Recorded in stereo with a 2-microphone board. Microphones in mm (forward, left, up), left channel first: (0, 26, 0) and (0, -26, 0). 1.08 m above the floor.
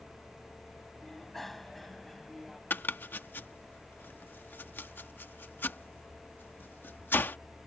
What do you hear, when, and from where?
1.0 s a bicycle bell: 5° left (ahead or behind); by 2.6 s centre (ahead or behind)
2.7 s chopping: 40° left (ahead or behind)